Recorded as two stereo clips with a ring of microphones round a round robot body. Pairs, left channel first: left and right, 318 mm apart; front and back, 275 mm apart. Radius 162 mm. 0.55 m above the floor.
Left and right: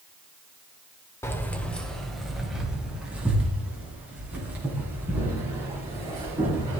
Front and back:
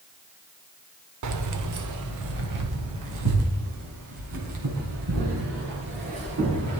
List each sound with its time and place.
1.2 s keys jangling: 170° left, 1.2 m; by 6.8 s 175° right, 6 m